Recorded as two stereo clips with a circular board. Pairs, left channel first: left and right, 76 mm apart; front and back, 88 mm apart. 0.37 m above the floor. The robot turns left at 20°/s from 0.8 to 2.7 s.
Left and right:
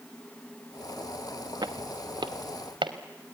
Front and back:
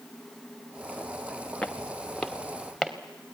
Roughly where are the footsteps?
Right.